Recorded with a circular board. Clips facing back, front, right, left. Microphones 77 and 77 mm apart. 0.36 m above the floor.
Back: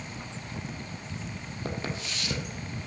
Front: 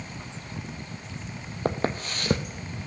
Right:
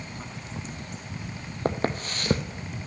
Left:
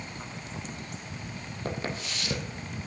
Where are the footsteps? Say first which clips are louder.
Front 8 dB, right 7 dB; 45° right, 0.8 m.